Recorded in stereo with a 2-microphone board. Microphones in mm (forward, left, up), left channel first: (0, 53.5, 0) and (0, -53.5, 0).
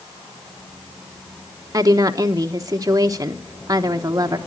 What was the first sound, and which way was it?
A woman speaking, 35° right (ahead or behind).